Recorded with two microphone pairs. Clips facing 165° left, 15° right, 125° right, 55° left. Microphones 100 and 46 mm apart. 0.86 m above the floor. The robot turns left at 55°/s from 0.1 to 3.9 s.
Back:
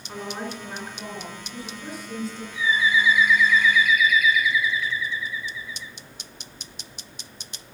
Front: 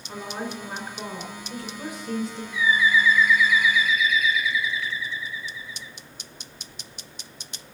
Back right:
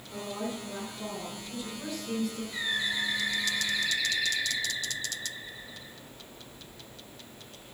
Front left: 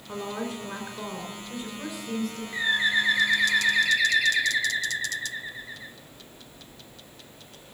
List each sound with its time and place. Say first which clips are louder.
0.1 s a woman speaking: even, front left 3 dB; 80° left, 4 m; by 2.4 s 50° right, 4 m
2.5 s a bird: front 1 dB, front left 10 dB; 120° left, 1.8 m; by 5.9 s 45° left, 1.8 m